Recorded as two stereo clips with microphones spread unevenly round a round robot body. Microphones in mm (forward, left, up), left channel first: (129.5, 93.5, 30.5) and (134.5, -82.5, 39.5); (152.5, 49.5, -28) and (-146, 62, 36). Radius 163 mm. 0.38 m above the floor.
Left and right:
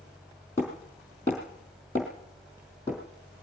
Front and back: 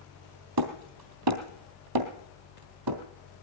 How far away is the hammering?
About 3 m.